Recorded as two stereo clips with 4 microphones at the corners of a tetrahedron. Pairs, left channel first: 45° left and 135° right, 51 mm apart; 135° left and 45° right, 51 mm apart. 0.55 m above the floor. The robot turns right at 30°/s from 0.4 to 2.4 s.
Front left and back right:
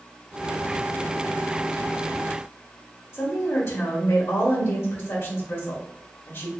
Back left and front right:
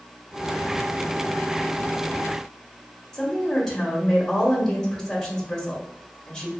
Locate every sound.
3.1 s a woman speaking: 50° left, 1.1 m